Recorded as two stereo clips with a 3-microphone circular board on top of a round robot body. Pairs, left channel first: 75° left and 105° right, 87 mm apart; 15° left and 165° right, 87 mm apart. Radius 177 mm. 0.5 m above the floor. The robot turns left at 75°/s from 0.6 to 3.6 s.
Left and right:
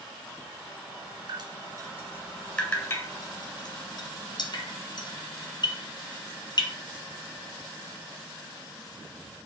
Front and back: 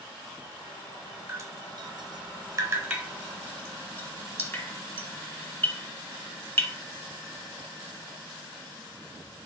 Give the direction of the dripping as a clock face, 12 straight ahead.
4 o'clock.